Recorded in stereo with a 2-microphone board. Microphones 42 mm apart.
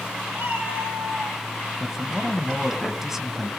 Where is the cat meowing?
65° right (ahead or behind), 6 m.